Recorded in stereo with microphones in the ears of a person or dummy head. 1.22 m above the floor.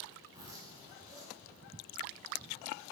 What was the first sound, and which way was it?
A zipper, 25° right (ahead or behind).